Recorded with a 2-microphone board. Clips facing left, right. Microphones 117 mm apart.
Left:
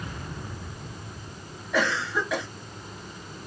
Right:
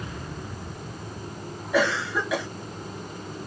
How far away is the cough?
About 0.6 m.